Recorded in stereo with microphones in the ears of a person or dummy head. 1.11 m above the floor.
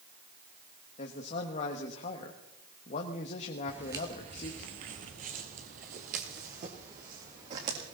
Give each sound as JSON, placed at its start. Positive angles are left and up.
{"t": 1.0, "sound": "a man speaking", "side_deg": 45, "distance_m": 1.3}
{"t": 3.7, "sound": "footsteps", "side_deg": -5, "distance_m": 1.3}